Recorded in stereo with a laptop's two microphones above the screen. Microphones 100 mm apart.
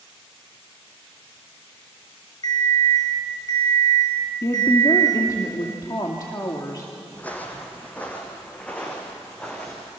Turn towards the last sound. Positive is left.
turn(degrees=10)  # may be behind; listen again after turning